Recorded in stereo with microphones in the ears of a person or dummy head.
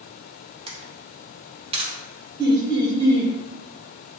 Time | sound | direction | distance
0.7 | a camera shutter | 25° right (ahead or behind) | 0.9 m
2.4 | laughter | 20° right (ahead or behind) | 1.3 m